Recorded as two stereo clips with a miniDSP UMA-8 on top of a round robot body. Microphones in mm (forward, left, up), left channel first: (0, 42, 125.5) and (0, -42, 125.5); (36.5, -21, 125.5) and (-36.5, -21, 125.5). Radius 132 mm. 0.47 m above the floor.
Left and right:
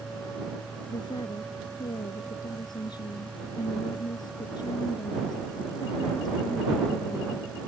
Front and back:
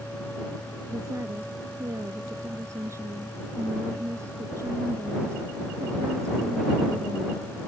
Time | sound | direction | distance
0.9 | a woman speaking | 130° left | ?